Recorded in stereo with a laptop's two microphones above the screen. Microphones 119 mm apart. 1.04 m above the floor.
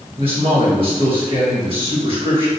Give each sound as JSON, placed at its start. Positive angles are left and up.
{"t": 0.2, "sound": "a man speaking", "side_deg": -50, "distance_m": 1.6}